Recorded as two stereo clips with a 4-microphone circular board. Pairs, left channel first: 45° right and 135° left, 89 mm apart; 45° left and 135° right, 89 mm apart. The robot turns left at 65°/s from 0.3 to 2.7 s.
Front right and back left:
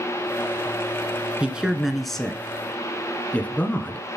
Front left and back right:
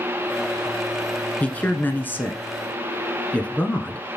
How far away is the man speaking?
About 1.1 m.